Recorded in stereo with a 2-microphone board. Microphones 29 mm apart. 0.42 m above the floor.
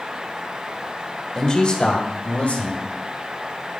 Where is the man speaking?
20° left (ahead or behind), 1.2 m; by 2.8 s 60° left (ahead or behind), 2.5 m.